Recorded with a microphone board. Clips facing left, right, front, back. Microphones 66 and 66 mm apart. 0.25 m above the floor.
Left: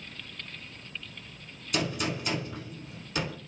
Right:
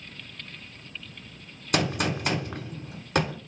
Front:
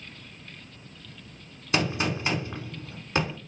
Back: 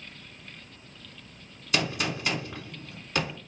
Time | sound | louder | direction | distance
1.7 | a gunshot | right 4 dB, front 2 dB | 65° right | 0.8 m